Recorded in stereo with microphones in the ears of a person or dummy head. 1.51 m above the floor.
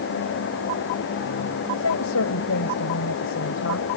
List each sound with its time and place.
1.8 s a woman speaking: 85° left